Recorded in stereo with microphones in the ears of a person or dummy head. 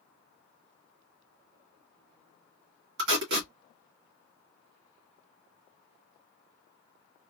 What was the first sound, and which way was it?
Tape being pulled, 60° right (ahead or behind).